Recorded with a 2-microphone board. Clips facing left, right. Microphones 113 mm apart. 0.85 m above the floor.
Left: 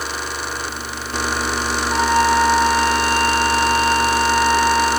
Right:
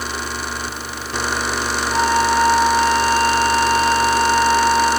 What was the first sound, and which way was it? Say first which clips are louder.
A flute: left 1 dB; centre (ahead or behind).